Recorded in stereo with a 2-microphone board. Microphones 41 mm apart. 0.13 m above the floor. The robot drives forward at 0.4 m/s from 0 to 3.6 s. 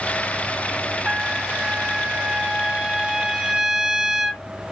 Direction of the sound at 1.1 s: 15° right (ahead or behind).